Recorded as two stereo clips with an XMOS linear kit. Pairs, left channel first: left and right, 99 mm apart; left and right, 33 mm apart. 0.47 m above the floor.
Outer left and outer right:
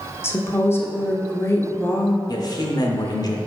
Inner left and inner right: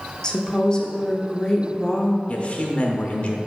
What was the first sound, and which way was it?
A woman speaking, 25° left (ahead or behind).